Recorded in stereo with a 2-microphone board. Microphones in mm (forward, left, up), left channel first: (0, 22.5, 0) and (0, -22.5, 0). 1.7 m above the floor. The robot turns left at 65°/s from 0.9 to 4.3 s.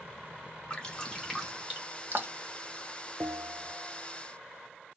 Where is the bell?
105° right, 0.6 m; by 4.0 s 155° right, 0.6 m.